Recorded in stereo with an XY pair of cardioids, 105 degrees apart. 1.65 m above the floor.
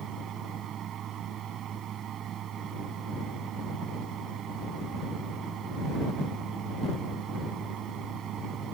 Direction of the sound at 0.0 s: 70° right.